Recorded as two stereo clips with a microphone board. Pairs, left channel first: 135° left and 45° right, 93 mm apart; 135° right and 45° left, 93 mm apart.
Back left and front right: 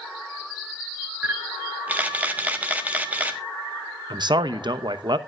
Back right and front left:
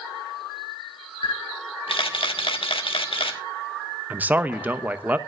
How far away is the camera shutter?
About 1.4 m.